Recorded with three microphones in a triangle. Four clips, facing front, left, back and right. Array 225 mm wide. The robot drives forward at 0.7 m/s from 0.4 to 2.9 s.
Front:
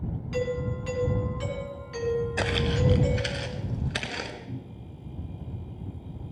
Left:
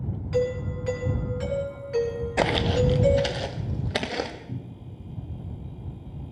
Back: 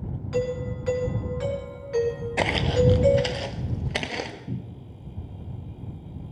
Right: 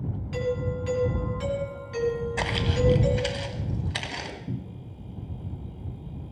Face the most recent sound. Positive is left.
turn(degrees=-115)